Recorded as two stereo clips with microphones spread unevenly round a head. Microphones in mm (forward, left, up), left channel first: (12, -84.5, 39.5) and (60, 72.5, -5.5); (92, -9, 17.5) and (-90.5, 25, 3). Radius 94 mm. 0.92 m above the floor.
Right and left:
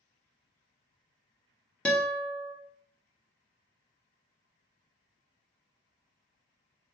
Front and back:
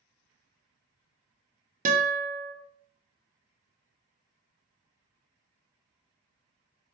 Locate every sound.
1.9 s a guitar: 155° left, 0.6 m